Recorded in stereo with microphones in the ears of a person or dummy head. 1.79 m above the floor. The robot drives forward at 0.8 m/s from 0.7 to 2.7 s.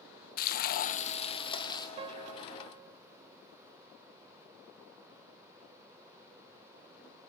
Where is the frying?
55° left (ahead or behind), 0.8 m; by 1.9 s 25° left (ahead or behind), 1.5 m.